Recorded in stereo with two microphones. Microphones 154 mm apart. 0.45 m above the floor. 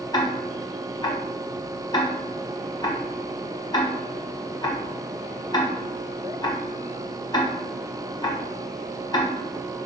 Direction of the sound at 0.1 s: 30° left (ahead or behind).